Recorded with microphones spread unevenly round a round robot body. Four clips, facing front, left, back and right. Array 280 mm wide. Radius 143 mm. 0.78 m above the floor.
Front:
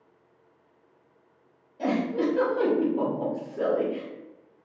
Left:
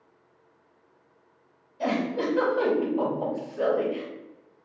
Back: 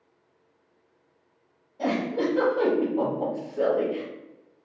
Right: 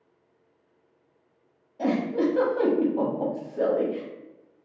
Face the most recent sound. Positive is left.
turn(degrees=-105)